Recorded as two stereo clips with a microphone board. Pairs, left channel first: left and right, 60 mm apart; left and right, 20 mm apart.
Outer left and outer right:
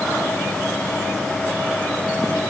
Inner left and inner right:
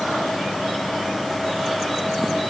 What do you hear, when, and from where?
Only background noise.